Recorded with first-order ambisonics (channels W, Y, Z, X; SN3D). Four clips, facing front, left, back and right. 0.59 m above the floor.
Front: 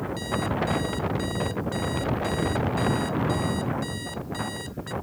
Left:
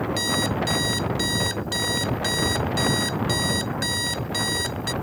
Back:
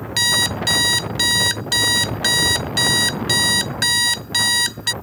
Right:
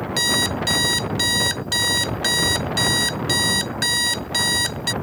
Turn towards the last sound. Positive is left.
turn(degrees=-160)